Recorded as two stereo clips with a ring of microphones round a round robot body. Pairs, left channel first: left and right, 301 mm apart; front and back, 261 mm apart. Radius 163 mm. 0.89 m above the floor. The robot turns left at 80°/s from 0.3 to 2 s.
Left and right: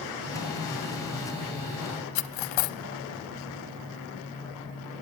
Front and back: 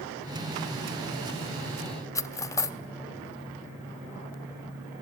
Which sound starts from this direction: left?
Cutlery clinking, at 2.1 s.